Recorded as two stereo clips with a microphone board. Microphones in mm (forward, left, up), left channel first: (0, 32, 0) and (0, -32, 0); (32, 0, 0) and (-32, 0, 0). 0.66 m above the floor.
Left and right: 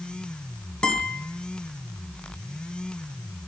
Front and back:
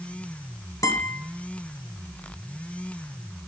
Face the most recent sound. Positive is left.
turn(degrees=15)